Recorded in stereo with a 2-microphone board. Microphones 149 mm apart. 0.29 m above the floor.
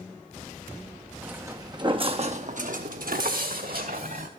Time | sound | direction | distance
1.2 | footsteps | 10° right (ahead or behind) | 0.9 m